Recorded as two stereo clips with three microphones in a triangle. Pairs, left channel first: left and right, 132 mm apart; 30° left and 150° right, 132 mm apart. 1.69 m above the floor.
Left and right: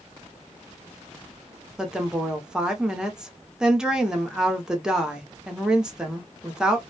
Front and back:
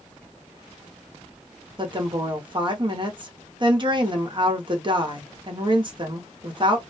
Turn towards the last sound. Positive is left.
turn(degrees=-170)